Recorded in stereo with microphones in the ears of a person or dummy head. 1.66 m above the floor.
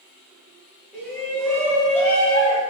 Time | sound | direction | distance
0.9 | a shout | 5° right (ahead or behind) | 1.7 m